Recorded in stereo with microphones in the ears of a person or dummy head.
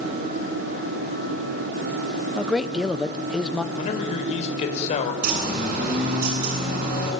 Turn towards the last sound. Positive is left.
turn(degrees=-50)  # may be behind; listen again after turning